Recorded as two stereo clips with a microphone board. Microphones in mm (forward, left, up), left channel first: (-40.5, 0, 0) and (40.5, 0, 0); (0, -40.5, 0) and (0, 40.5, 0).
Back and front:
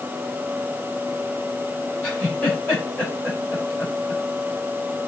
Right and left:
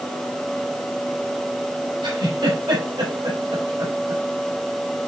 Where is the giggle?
100° left, 4.5 m.